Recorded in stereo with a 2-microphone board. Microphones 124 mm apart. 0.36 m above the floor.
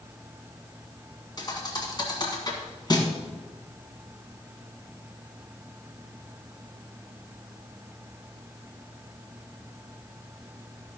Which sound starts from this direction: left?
A thud, at 1.4 s.